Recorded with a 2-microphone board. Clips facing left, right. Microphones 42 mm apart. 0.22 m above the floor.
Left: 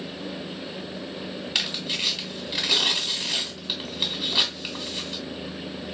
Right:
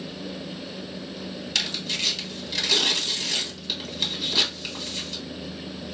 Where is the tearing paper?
15° left (ahead or behind), 1.1 m.